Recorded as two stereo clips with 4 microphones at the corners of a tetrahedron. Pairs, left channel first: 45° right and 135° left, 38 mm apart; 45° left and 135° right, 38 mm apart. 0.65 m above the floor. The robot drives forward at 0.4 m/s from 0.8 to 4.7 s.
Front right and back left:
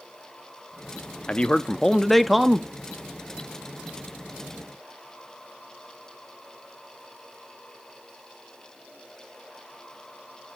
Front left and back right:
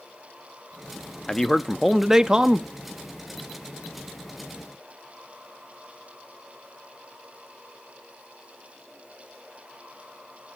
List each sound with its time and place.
1.3 s a man speaking: 20° right, 0.6 m; by 2.7 s 160° right, 0.6 m